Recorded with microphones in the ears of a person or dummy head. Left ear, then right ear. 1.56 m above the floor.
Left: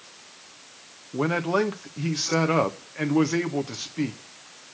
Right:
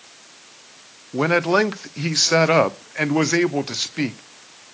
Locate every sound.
1.1 s a man speaking: 30° right (ahead or behind), 0.6 m